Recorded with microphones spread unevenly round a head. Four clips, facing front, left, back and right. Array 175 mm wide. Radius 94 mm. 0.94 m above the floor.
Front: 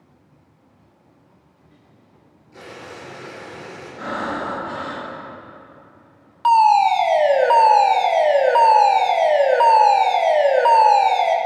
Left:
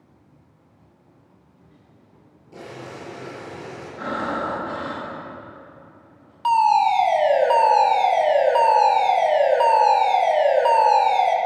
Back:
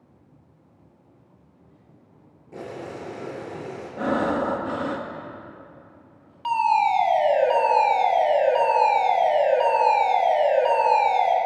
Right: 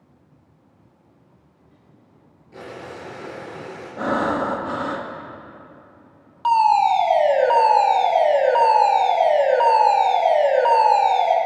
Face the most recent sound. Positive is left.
turn(degrees=-10)